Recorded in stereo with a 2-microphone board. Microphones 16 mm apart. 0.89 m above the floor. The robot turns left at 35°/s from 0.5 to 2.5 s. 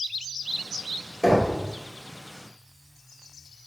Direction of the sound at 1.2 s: 20° right (ahead or behind).